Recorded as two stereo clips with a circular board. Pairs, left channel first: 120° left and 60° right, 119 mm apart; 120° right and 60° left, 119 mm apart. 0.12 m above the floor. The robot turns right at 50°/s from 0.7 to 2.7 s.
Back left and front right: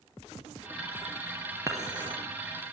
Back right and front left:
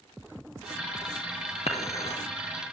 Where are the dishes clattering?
125° right, 2 m; by 2.2 s 95° right, 2 m.